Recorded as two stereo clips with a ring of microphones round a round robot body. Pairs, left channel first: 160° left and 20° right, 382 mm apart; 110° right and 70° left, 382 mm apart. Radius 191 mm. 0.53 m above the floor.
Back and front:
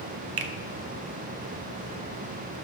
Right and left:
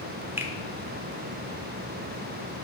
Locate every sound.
0.4 s a finger snap: 15° right, 0.9 m